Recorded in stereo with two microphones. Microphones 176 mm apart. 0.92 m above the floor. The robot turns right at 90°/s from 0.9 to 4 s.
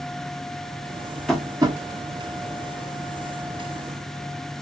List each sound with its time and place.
1.3 s tapping: 5° left (ahead or behind), 1.0 m; by 1.8 s 35° right (ahead or behind), 1.0 m